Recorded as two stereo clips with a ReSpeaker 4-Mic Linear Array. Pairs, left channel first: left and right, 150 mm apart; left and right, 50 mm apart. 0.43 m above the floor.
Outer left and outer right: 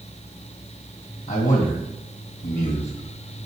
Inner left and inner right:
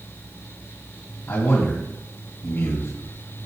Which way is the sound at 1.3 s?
65° left (ahead or behind).